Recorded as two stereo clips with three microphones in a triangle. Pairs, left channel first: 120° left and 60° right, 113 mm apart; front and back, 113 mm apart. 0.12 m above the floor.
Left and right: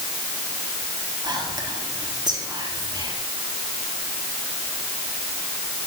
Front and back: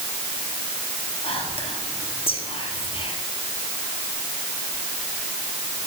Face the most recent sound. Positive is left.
turn(degrees=-15)